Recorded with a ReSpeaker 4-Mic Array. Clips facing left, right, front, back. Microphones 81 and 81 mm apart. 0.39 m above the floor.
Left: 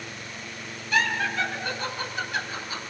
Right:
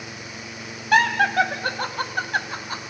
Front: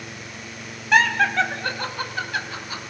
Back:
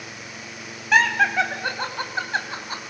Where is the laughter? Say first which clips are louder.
Right 7 dB, even; 90° right, 3 m; by 2.9 s 135° right, 3 m.